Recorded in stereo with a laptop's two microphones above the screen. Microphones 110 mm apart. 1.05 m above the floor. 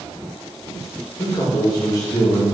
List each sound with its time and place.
1.2 s a man speaking: 50° left (ahead or behind), 1.2 m; by 2.4 s 20° left (ahead or behind), 1.1 m